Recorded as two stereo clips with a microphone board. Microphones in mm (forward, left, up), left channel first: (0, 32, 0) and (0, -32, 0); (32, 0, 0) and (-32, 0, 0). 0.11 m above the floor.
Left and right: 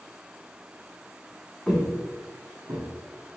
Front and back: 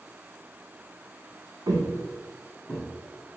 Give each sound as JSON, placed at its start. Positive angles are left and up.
{"t": 1.7, "sound": "footsteps", "azimuth_deg": 175, "distance_m": 0.9}